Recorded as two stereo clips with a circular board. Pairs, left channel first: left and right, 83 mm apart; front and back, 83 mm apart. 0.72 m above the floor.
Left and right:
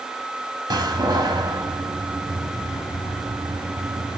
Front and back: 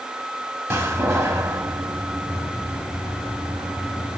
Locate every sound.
0.7 s a door slam: 125° right, 1.3 m